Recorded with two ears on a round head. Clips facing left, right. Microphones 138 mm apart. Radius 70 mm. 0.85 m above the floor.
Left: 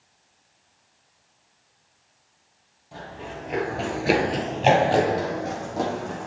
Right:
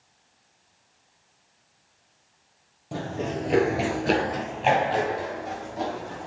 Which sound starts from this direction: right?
Running footsteps, at 2.9 s.